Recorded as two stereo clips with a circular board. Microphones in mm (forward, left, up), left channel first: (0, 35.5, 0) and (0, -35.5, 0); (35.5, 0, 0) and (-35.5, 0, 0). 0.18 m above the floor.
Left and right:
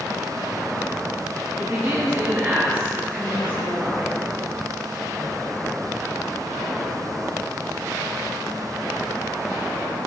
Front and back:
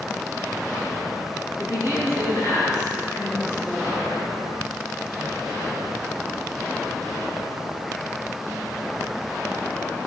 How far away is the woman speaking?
About 2.5 m.